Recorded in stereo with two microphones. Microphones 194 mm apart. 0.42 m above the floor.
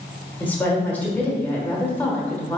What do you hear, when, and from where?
0.4 s a woman speaking: 10° left (ahead or behind), 1.1 m